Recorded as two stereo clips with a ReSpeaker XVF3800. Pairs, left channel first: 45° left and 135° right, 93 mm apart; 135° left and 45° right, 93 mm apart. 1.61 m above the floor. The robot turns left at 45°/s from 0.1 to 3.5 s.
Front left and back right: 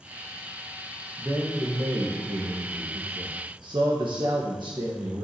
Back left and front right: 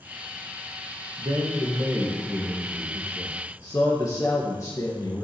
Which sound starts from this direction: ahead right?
A man speaking, at 1.2 s.